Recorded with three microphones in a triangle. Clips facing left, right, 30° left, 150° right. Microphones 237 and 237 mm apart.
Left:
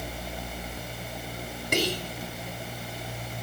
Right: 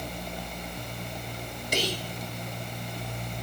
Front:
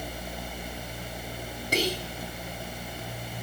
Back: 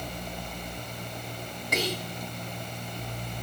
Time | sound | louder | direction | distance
1.7 | whispering | left 3 dB, front 2 dB | 80° left | 2 m